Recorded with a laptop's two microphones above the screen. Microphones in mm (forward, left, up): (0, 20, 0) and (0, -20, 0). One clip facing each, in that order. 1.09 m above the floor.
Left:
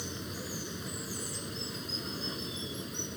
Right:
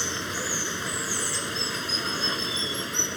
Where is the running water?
75° right (ahead or behind).